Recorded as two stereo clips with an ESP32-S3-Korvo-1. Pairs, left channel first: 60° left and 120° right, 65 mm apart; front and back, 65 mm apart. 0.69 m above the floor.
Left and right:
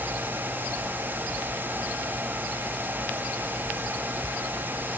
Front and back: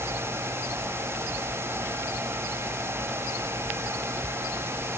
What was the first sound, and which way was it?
Only background noise.